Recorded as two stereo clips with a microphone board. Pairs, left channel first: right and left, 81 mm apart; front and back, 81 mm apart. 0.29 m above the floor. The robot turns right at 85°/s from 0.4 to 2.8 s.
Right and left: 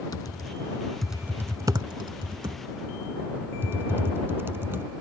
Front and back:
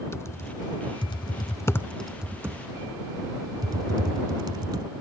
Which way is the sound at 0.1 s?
55° right.